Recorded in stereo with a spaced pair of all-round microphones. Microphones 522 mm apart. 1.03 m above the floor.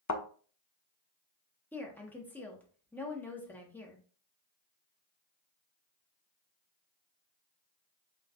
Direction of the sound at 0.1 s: 35° left (ahead or behind).